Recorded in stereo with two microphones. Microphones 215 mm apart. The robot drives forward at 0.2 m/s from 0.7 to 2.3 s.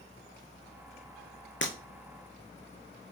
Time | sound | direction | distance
1.6 | breaking glass | 60° left (ahead or behind) | 2.5 m